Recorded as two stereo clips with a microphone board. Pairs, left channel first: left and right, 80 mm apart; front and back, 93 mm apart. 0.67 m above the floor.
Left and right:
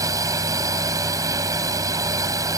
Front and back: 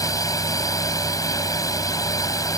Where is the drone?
50° right.